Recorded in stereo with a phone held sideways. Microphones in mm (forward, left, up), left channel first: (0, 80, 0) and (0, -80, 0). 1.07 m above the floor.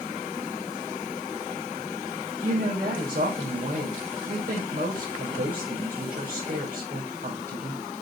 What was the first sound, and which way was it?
A woman speaking, 60° right (ahead or behind).